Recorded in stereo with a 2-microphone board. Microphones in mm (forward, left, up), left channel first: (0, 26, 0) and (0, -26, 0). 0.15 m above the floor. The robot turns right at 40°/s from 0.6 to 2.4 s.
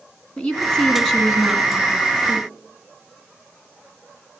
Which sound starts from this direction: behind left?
A woman speaking, at 0.4 s.